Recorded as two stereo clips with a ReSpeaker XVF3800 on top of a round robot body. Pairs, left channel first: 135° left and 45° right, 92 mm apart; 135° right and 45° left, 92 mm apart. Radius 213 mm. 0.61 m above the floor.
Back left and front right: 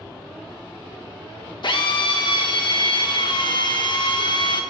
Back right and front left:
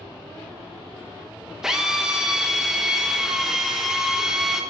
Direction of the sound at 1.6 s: 130° left.